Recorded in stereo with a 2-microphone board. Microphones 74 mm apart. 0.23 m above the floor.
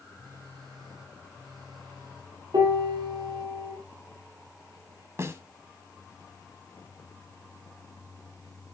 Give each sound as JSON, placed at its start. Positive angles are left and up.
{"t": 0.1, "sound": "a phone buzzing", "side_deg": -85, "distance_m": 5.0}
{"t": 2.5, "sound": "a piano", "side_deg": -80, "distance_m": 4.5}
{"t": 5.2, "sound": "a snare drum", "side_deg": -40, "distance_m": 1.3}